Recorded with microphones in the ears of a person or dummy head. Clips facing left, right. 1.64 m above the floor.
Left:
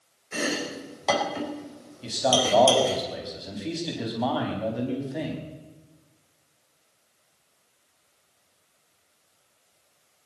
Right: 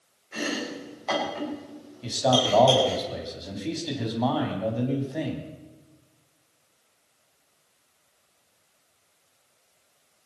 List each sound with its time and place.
0.3 s chopping: 60° left (ahead or behind), 4 m
2.0 s a man speaking: centre (ahead or behind), 3.5 m